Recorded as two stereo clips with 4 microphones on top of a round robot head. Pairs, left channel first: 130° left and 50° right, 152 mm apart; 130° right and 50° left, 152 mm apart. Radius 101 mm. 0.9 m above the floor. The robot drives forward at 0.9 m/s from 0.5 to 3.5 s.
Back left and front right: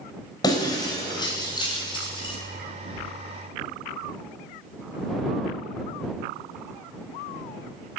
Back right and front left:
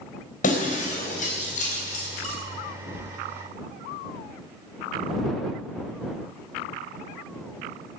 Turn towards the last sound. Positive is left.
turn(degrees=-175)